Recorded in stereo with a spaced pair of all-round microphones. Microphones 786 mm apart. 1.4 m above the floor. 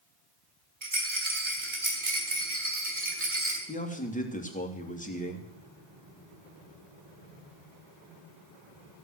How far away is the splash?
I don't hear a splash.